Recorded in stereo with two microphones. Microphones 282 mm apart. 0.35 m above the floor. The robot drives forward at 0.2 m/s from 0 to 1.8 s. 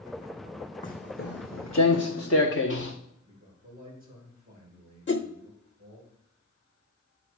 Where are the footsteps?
25° left (ahead or behind), 1.1 m; by 2.9 s 45° left (ahead or behind), 2 m.